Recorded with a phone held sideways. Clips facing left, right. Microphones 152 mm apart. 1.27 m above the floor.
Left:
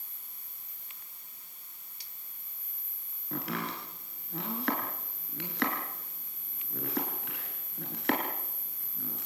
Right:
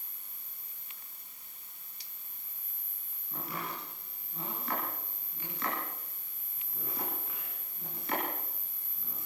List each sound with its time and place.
3.3 s chopping: 75° left (ahead or behind), 5.5 m